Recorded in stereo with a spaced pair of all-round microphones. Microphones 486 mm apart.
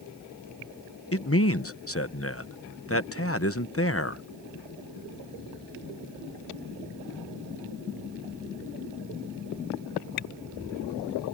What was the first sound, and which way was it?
A man speaking, 30° left (ahead or behind).